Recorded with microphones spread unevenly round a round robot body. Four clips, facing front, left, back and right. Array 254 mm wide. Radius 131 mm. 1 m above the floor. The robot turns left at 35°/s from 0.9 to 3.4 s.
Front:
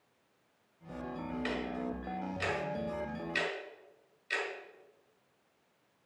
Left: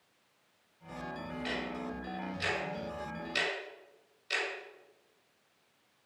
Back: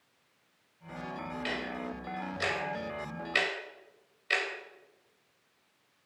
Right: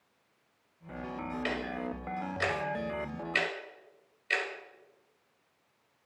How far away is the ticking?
About 2.0 m.